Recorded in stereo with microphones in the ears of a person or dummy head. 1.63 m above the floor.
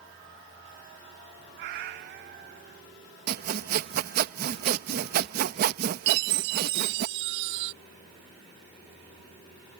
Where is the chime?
50° right (ahead or behind).